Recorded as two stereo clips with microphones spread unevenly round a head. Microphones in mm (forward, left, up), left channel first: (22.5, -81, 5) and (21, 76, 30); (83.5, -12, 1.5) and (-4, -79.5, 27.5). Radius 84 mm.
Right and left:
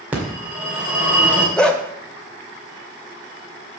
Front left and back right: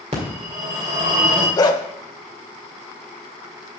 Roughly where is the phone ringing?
Behind.